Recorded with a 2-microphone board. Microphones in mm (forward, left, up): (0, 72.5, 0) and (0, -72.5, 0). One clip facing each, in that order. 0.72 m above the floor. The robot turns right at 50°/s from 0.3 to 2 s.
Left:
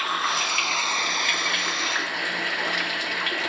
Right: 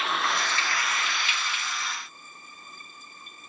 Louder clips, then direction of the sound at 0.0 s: Even; straight ahead.